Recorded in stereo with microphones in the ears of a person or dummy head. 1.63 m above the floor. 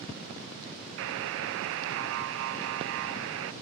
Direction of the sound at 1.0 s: 65° right (ahead or behind).